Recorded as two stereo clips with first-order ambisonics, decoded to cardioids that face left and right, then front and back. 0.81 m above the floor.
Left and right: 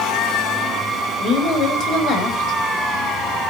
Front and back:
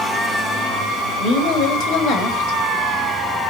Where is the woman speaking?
40° left, 4.5 m.